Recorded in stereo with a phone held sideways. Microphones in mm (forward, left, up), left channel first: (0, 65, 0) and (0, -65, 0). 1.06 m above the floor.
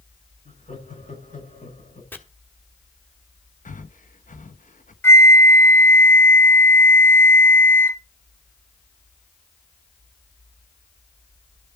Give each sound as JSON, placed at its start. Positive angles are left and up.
{"t": 0.5, "sound": "laughter", "side_deg": 80, "distance_m": 7.0}
{"t": 2.1, "sound": "chopping", "side_deg": 15, "distance_m": 1.5}
{"t": 3.6, "sound": "breathing", "side_deg": 80, "distance_m": 0.7}
{"t": 5.0, "sound": "a flute", "side_deg": 20, "distance_m": 1.0}